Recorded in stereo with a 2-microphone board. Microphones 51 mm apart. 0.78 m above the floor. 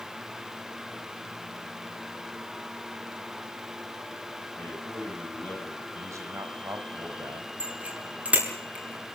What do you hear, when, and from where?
4.5 s a man speaking: 40° left (ahead or behind), 7.5 m
6.0 s a man speaking: 80° right, 4.5 m
7.6 s a bicycle bell: 30° right (ahead or behind), 7 m